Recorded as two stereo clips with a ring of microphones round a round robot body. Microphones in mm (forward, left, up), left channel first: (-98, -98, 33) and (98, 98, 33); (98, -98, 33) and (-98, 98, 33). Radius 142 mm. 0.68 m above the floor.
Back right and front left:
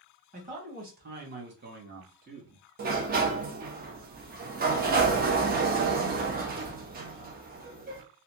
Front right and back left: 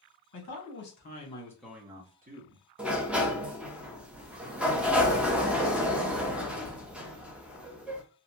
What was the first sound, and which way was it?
A man speaking, 15° right.